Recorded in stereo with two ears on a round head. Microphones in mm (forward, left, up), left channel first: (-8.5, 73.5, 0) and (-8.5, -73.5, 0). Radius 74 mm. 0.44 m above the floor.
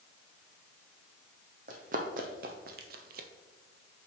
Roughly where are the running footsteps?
Right.